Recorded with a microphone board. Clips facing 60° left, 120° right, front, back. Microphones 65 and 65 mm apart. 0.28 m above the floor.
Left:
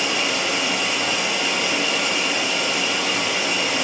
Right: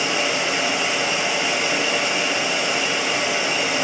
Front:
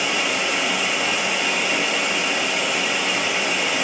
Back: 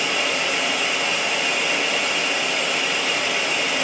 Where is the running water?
80° right, 1.3 m.